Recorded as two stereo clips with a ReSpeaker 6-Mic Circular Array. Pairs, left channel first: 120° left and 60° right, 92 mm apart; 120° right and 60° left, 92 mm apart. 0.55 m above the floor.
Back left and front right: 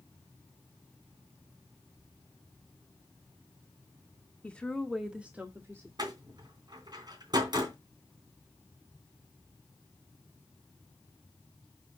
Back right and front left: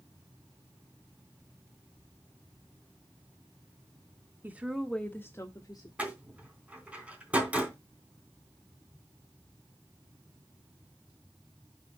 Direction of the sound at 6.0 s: 15° right.